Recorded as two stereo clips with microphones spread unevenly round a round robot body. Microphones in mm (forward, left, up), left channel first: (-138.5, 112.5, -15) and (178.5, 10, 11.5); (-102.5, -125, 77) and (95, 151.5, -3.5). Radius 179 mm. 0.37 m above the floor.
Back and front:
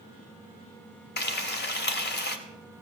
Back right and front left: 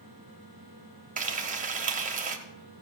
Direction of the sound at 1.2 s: 110° left.